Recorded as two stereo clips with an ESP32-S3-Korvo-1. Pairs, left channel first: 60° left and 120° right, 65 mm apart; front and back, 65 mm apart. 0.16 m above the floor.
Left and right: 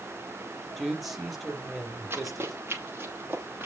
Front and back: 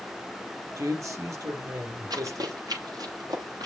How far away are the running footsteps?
About 6.5 m.